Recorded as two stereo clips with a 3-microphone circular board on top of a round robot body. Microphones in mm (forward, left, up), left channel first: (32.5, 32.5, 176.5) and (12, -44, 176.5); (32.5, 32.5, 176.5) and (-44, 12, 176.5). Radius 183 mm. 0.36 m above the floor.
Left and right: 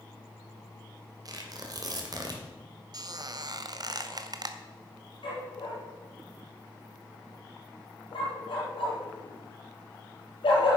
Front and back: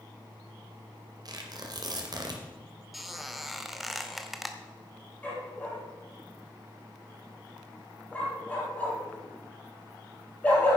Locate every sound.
1.2 s tearing paper: 135° right, 2 m
2.9 s a squeak: 75° right, 1.2 m
5.2 s a dog barking: 85° left, 3.5 m